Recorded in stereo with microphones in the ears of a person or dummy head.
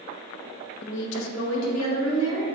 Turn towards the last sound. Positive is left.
turn(degrees=85)